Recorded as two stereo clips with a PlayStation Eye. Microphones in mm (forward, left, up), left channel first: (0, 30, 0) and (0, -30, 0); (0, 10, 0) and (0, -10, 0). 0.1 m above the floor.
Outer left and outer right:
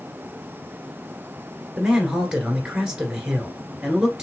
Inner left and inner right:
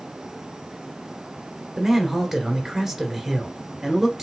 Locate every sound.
1.8 s a man speaking: 10° right (ahead or behind), 1.9 m